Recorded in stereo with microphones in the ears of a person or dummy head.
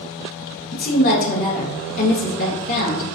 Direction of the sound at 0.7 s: 50° left (ahead or behind).